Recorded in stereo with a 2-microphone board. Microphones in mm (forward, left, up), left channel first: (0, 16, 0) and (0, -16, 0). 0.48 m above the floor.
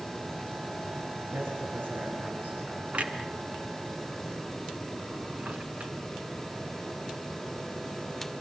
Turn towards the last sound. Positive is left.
turn(degrees=-50)  # may be behind; listen again after turning